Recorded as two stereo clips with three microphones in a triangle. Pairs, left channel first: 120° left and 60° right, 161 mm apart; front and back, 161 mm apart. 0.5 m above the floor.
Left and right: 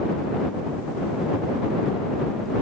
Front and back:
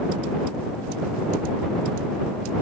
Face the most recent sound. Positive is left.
No sound to turn to.